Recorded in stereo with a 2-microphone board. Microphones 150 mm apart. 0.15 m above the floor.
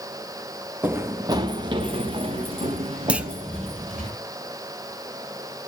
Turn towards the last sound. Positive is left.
turn(degrees=-10)  # may be behind; listen again after turning